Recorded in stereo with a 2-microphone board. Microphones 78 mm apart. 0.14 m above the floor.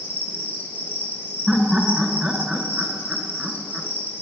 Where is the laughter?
10° right (ahead or behind), 1.4 m.